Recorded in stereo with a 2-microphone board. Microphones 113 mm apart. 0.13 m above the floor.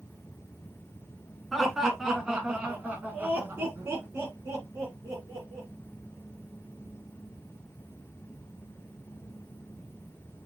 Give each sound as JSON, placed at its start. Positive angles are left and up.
{"t": 1.5, "sound": "laughter", "side_deg": 0, "distance_m": 1.8}